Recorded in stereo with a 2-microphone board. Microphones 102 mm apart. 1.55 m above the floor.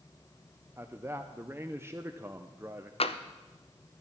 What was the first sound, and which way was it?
A man speaking, 20° right (ahead or behind).